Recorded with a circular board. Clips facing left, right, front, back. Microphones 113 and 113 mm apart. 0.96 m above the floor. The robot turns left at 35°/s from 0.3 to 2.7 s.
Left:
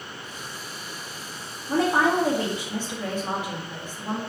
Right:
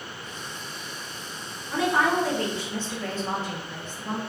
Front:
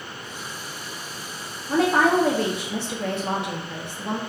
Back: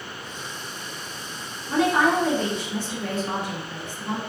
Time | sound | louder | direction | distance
1.7 | a woman speaking | left 2 dB, front 1 dB | 45° left | 0.8 m